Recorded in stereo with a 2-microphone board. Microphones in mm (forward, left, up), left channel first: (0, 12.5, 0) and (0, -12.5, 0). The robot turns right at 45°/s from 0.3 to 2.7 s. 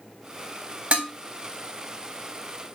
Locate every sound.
0.9 s dishes clattering: 65° right (ahead or behind), 1.2 m; by 1.1 s 60° right (ahead or behind), 1.2 m